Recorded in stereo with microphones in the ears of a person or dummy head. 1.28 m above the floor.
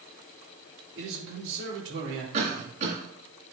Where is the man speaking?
70° right (ahead or behind), 4.5 m.